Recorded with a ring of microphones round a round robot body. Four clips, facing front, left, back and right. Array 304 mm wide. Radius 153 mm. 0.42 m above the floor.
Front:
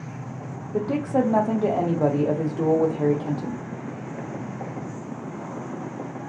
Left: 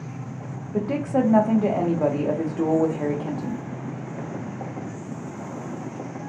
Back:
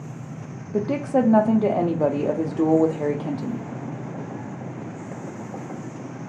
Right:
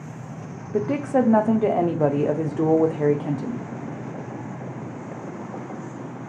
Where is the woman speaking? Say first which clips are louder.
Right 2 dB, back 1 dB; 120° right, 0.8 m.